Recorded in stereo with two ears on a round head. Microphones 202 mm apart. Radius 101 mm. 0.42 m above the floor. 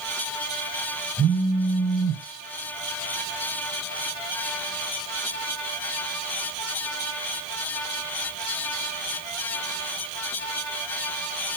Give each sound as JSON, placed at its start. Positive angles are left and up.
{"t": 1.2, "sound": "a phone buzzing", "side_deg": -55, "distance_m": 2.5}